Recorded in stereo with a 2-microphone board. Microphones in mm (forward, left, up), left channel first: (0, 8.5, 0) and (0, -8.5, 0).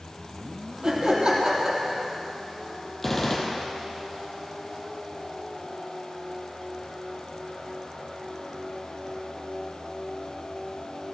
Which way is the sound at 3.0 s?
15° left (ahead or behind).